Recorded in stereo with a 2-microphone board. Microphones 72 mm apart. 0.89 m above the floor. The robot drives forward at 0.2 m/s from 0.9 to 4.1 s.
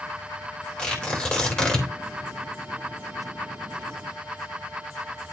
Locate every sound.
0.8 s tearing paper: 15° left (ahead or behind), 3.5 m